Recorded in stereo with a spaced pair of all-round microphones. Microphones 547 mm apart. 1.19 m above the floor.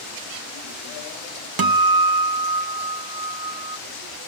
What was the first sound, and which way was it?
A guitar, 40° right (ahead or behind).